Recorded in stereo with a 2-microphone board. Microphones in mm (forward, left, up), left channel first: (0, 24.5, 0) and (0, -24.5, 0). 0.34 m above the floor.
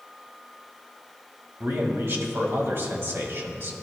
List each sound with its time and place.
1.6 s a man speaking: 50° right (ahead or behind), 2 m